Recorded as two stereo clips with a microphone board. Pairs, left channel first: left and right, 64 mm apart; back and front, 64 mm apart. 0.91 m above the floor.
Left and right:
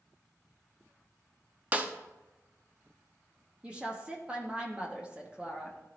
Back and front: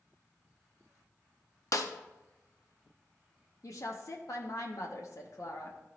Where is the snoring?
I don't hear snoring.